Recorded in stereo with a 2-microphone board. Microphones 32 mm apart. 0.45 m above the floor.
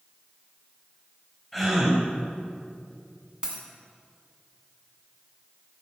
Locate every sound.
1.5 s a gasp: centre (ahead or behind), 3 m
3.4 s a dropped coin: 25° right (ahead or behind), 2 m